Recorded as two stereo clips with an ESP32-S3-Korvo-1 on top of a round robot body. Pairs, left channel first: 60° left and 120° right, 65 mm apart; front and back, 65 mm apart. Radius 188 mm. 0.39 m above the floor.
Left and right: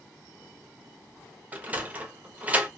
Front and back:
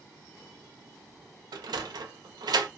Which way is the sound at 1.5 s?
175° left.